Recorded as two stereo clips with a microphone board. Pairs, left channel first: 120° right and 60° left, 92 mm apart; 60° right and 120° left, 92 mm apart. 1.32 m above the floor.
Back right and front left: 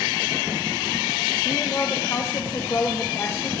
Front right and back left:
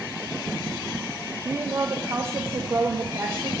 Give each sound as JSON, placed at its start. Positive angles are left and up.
{"t": 1.4, "sound": "a woman speaking", "azimuth_deg": 180, "distance_m": 0.9}